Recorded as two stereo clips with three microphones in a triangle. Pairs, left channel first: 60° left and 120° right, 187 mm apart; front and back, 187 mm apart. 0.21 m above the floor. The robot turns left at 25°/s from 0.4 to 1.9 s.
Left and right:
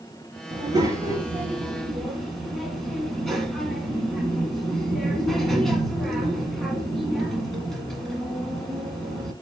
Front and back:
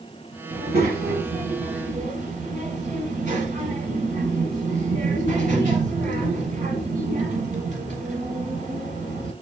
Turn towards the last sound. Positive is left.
turn(degrees=150)